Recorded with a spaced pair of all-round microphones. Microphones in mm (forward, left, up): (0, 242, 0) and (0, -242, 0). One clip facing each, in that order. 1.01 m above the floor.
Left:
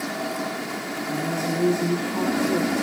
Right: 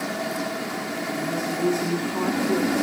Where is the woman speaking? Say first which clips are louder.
Left 2 dB; 55° left (ahead or behind), 2.5 m.